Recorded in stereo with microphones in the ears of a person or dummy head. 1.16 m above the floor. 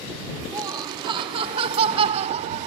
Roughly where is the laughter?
Centre.